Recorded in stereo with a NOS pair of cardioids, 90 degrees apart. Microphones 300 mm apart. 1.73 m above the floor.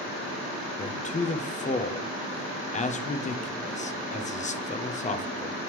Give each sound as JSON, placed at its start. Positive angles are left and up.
{"t": 0.8, "sound": "a man speaking", "azimuth_deg": 25, "distance_m": 0.9}